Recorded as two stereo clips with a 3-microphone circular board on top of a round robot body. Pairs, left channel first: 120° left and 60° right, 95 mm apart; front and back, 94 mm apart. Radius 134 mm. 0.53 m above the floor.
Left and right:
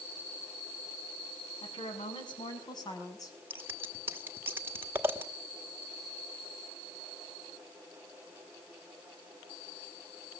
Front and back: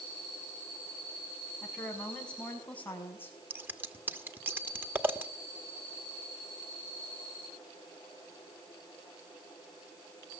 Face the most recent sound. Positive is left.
turn(degrees=-120)